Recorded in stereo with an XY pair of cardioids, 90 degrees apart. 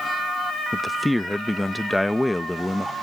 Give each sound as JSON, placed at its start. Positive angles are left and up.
{"t": 0.7, "sound": "a man speaking", "azimuth_deg": 10}